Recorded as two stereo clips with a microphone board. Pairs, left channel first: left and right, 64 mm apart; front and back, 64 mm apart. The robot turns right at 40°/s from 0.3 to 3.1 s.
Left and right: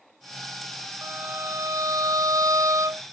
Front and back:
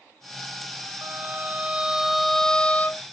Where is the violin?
140° right; by 3.0 s 60° right.